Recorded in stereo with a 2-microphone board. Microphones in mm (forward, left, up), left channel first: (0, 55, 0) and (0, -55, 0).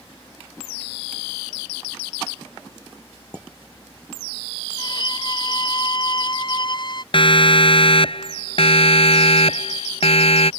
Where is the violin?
40° left (ahead or behind).